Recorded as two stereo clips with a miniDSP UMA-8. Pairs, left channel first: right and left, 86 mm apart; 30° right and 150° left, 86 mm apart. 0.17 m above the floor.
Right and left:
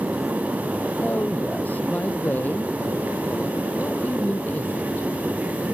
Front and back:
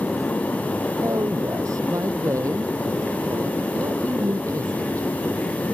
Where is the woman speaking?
160° right.